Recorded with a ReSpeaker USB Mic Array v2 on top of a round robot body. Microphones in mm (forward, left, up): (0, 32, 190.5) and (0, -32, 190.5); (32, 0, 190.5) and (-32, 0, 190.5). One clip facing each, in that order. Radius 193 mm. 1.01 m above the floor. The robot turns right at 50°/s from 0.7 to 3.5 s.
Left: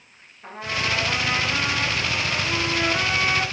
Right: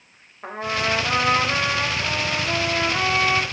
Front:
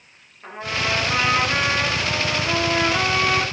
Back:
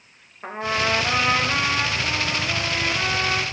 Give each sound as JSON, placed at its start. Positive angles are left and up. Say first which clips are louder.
{"t": 0.4, "sound": "a trumpet", "louder": "right 3 dB, back 2 dB", "azimuth_deg": -125, "distance_m": 3.0}